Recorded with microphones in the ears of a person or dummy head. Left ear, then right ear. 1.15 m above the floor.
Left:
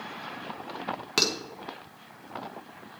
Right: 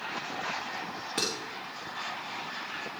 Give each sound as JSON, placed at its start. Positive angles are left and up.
{"t": 1.2, "sound": "dishes clattering", "side_deg": 40, "distance_m": 1.6}